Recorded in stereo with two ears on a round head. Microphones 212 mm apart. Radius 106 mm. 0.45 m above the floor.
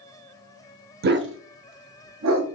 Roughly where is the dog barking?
Right.